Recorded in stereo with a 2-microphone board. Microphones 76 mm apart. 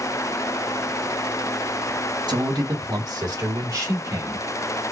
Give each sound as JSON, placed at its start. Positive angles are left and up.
{"t": 2.3, "sound": "a man speaking", "side_deg": -80, "distance_m": 1.8}